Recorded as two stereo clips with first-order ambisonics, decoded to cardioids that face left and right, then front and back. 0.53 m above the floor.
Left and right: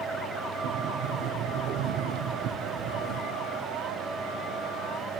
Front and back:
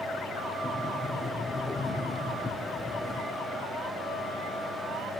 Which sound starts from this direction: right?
A sliding door, at 0.6 s.